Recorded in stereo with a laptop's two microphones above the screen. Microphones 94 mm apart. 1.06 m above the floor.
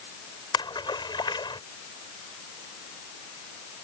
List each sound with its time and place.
0.5 s a splash: 55° left (ahead or behind)